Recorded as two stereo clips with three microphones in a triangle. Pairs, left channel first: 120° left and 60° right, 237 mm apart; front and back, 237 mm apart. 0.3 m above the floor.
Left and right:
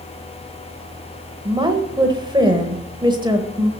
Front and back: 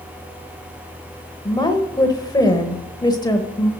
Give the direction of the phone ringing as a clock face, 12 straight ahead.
No phone ringing in this recording.